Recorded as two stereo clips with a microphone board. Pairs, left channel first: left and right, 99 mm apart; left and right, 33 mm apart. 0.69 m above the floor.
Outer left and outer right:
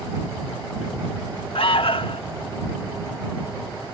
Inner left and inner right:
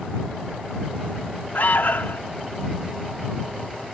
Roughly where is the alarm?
Left.